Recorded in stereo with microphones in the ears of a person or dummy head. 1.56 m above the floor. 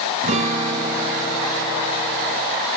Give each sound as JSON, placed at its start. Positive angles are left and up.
{"t": 0.2, "sound": "a guitar", "side_deg": -30, "distance_m": 1.1}